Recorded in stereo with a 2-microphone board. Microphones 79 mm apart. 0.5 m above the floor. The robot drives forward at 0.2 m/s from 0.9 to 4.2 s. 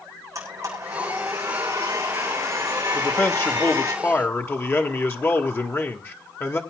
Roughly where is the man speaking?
Left.